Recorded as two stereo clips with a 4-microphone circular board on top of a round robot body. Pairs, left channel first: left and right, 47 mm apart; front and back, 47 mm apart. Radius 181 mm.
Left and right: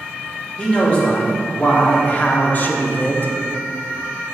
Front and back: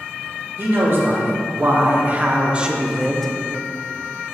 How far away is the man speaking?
About 1.8 m.